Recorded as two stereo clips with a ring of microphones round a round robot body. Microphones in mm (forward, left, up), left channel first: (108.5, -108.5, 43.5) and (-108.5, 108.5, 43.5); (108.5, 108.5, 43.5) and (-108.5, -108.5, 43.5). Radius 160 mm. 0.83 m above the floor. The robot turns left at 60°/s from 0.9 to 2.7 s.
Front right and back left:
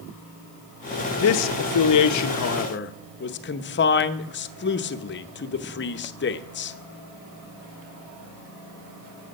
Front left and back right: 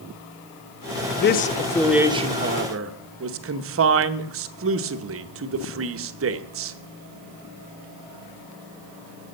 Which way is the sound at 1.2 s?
5° right.